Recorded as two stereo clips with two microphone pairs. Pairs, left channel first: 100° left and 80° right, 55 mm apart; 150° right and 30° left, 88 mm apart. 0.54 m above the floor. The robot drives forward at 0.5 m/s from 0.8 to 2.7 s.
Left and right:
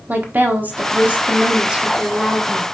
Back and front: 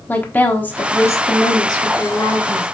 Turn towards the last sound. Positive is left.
turn(degrees=-155)